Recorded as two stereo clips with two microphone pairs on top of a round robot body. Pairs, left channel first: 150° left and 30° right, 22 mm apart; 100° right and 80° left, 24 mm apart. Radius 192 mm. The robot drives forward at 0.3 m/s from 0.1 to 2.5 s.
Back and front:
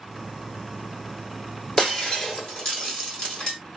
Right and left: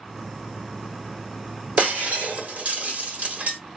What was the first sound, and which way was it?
Breaking glass, 95° left.